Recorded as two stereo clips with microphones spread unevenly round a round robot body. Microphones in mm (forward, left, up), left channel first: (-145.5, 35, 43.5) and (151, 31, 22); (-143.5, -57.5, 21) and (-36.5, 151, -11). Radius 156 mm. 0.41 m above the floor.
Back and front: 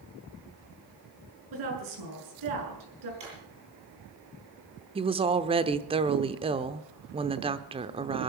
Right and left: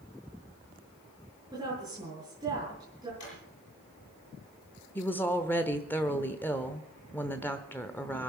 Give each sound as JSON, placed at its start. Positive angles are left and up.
{"t": 1.5, "sound": "a woman speaking", "azimuth_deg": -15, "distance_m": 7.0}
{"t": 3.2, "sound": "a drawer", "azimuth_deg": -70, "distance_m": 7.0}
{"t": 5.0, "sound": "a woman speaking", "azimuth_deg": -25, "distance_m": 0.8}